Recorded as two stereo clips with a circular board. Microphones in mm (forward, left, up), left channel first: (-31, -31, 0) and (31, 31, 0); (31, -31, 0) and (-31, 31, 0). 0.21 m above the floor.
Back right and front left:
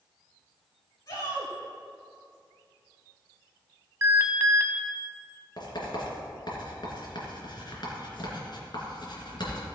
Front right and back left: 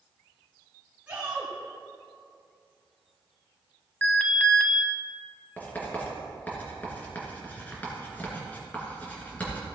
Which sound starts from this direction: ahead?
An alarm, at 4.0 s.